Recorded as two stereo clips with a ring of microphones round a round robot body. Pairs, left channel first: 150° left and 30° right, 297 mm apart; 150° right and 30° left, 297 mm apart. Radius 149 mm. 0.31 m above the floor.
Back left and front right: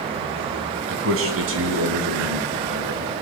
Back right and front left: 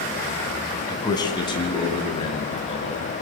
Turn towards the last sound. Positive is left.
turn(degrees=-80)